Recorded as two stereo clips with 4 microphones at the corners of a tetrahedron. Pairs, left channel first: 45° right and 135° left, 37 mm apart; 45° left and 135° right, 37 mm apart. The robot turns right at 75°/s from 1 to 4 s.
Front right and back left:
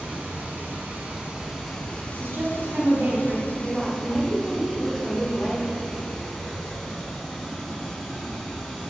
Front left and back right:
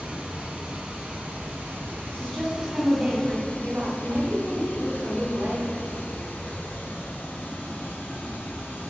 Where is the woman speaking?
110° left, 3 m; by 5.8 s 110° right, 3 m.